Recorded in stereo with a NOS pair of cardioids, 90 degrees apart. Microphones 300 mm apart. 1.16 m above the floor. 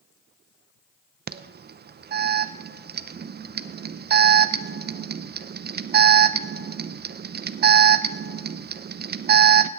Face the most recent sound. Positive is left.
turn(degrees=-35)